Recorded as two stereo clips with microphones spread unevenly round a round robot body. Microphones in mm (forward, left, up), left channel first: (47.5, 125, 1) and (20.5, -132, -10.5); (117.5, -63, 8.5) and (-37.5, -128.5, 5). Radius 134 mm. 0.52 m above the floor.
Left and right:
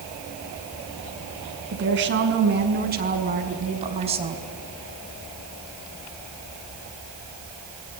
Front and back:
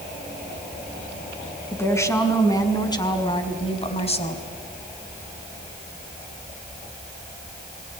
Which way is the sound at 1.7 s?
55° right.